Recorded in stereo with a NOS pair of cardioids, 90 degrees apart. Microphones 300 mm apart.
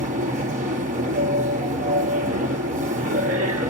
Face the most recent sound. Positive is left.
turn(degrees=-25)